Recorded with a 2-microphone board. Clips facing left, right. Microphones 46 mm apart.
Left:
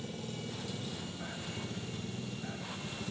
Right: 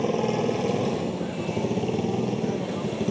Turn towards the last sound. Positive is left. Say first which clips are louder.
# right 18 dB
turn(degrees=-65)  # may be behind; listen again after turning